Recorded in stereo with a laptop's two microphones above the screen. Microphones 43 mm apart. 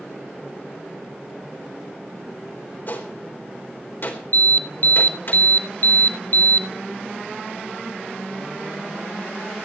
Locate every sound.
2.9 s a gunshot: 50° left (ahead or behind), 4 m
4.3 s an alarm: 45° left (ahead or behind), 1.0 m